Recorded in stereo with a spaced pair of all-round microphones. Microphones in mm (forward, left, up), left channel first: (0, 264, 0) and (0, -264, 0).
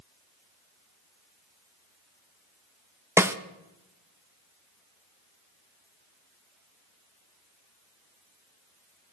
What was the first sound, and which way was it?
A snare drum, 5° right (ahead or behind).